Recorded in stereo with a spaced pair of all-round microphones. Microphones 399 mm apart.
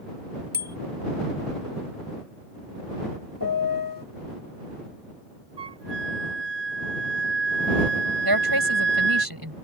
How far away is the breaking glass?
No breaking glass in this recording.